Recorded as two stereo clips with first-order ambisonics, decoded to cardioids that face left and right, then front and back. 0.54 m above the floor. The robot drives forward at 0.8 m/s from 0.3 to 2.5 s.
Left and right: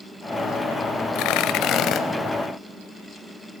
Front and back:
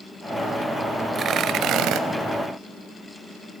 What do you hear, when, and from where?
1.1 s tearing paper: 115° left, 0.9 m; by 2.0 s 140° left, 1.4 m